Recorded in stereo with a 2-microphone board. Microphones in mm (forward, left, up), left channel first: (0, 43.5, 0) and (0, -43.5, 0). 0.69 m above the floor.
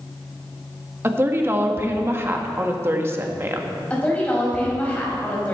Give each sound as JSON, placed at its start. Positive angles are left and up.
{"t": 1.0, "sound": "a woman speaking", "side_deg": -30, "distance_m": 1.2}
{"t": 3.9, "sound": "a woman speaking", "side_deg": 15, "distance_m": 4.0}